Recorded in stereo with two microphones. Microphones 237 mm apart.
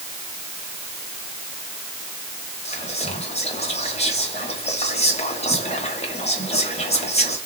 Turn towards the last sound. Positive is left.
turn(degrees=25)  # may be behind; listen again after turning